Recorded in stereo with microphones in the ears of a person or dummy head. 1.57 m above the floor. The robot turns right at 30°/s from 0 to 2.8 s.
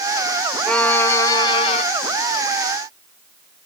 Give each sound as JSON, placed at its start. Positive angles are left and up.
{"t": 0.7, "sound": "a violin", "azimuth_deg": 5}